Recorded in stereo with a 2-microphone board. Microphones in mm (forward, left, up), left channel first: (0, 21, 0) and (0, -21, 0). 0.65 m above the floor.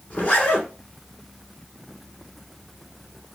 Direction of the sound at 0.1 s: 40° left (ahead or behind).